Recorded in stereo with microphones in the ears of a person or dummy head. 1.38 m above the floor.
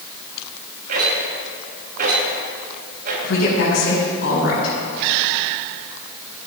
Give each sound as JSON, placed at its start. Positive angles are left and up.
{"t": 0.9, "sound": "a rattle", "side_deg": -55, "distance_m": 5.0}
{"t": 3.2, "sound": "a woman speaking", "side_deg": 70, "distance_m": 5.5}